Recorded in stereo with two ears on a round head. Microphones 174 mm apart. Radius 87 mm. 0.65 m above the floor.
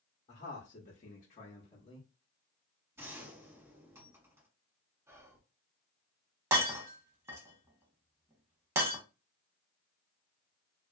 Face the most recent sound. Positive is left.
turn(degrees=-15)  # may be behind; listen again after turning